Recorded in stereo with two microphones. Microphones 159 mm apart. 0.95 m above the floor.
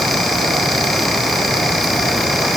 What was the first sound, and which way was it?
Only background noise.